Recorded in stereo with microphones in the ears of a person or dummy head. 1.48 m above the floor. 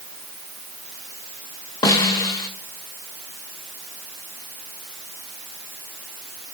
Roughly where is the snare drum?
Left.